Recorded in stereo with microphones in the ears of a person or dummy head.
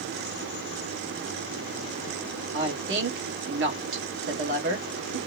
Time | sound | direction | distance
2.5 | a woman speaking | 75° right (ahead or behind) | 1.3 m